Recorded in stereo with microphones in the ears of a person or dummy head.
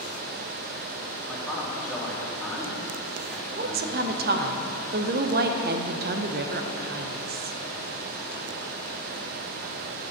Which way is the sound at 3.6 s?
35° right (ahead or behind).